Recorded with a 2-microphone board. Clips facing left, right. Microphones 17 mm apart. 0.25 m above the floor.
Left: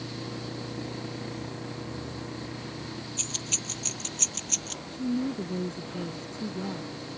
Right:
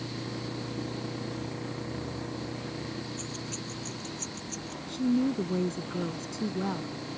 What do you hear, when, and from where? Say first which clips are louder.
3.2 s keys jangling: left 5 dB; 65° left (ahead or behind); by 4.8 s 70° left (ahead or behind)
4.9 s a woman speaking: right 3 dB; 45° right (ahead or behind)